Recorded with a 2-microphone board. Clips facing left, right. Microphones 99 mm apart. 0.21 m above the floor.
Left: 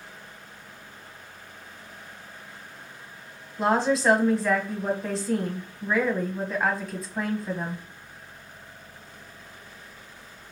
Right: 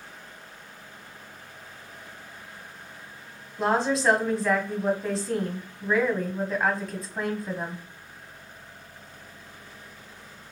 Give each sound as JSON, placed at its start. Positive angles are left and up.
{"t": 3.6, "sound": "a woman speaking", "side_deg": 0, "distance_m": 1.0}